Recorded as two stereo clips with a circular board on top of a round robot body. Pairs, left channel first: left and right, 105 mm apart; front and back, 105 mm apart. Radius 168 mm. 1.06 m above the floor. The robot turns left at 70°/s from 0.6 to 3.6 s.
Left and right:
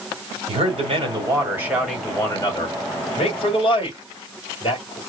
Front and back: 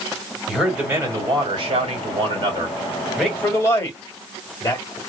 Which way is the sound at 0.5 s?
90° right.